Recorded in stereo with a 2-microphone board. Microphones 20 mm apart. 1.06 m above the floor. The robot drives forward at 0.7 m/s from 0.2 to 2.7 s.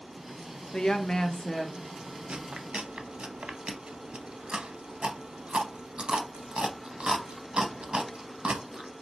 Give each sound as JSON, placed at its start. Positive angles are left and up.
{"t": 0.7, "sound": "a woman speaking", "side_deg": 45, "distance_m": 0.5}
{"t": 2.3, "sound": "chewing", "side_deg": -70, "distance_m": 0.5}